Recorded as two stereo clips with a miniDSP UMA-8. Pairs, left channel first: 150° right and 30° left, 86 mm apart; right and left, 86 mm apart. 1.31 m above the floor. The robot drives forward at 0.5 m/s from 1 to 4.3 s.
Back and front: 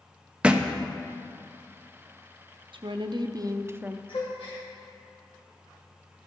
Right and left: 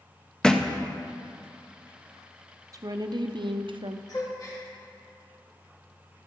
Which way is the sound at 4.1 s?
135° right.